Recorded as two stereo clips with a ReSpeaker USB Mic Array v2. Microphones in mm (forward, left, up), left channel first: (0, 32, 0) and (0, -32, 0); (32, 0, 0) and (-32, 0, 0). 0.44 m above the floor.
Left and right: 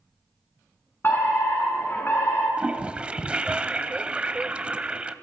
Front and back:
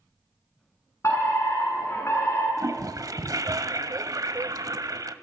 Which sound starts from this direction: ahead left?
A fire alarm, at 1.0 s.